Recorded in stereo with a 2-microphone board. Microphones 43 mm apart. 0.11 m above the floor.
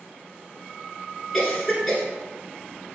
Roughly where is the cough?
Centre.